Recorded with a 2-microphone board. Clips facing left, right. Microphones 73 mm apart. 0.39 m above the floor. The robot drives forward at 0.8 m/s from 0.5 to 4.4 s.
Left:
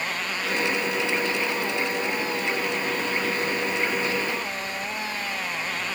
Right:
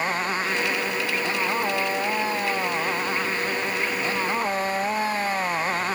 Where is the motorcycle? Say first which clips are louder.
Right 4 dB; 35° right (ahead or behind); by 6.0 s 40° right (ahead or behind).